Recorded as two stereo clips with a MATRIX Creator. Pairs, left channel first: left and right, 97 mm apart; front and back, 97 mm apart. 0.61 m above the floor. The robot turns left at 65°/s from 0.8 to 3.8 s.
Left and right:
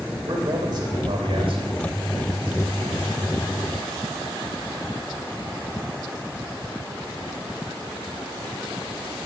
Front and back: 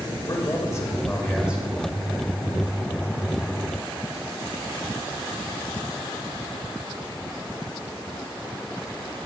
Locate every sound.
0.3 s a man speaking: 55° right, 2.5 m; by 1.6 s 110° right, 2.5 m